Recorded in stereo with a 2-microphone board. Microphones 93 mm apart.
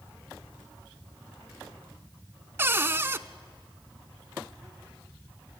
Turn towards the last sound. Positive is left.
turn(degrees=-25)  # may be behind; listen again after turning